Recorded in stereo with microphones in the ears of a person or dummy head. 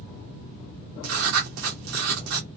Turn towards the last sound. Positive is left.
turn(degrees=-60)  # may be behind; listen again after turning